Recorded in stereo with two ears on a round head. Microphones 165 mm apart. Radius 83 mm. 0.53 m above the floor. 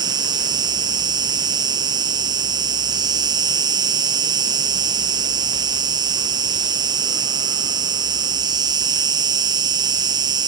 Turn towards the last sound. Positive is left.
turn(degrees=-25)  # may be behind; listen again after turning